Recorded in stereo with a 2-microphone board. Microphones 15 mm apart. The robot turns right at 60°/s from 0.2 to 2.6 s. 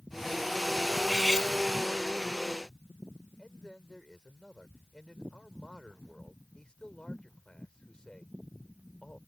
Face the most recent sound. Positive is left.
turn(degrees=75)  # may be behind; listen again after turning